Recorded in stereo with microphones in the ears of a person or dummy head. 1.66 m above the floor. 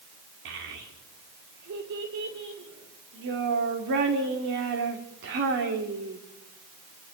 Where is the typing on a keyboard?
I don't hear typing on a keyboard.